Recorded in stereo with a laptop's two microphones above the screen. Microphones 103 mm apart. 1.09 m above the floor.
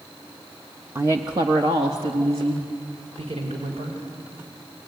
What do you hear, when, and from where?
0.9 s a woman speaking: 20° right (ahead or behind), 1.2 m; by 4.0 s 85° right, 5 m